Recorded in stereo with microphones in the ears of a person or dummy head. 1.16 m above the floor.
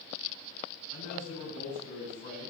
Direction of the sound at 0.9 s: 45° left (ahead or behind).